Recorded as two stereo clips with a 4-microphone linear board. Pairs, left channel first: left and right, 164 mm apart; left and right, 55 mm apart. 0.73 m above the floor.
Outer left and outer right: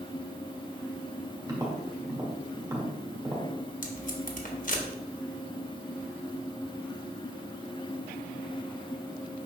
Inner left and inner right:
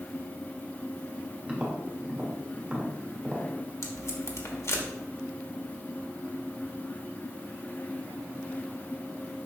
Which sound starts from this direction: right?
Tapping, at 1.5 s.